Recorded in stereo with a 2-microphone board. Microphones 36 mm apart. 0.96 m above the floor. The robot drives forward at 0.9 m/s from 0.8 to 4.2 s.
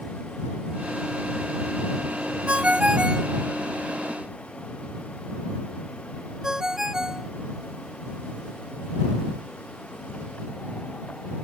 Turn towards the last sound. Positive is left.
turn(degrees=-15)  # may be behind; listen again after turning